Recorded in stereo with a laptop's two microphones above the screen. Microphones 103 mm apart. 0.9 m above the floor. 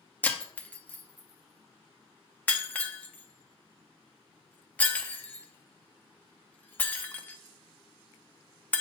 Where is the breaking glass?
15° left (ahead or behind), 0.7 m.